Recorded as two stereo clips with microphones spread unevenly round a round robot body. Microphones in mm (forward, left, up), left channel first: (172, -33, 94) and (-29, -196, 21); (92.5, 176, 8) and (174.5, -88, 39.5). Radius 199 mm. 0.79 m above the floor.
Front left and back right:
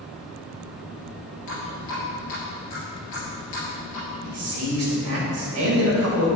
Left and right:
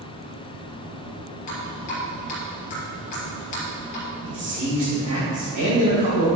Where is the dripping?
90° left, 3 m.